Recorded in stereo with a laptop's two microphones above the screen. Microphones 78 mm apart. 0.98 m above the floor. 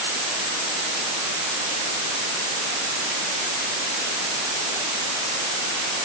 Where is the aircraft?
I don't hear an aircraft.